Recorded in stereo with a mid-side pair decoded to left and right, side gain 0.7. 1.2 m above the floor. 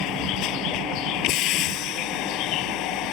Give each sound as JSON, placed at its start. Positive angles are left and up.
{"t": 0.0, "sound": "a vehicle", "azimuth_deg": 60}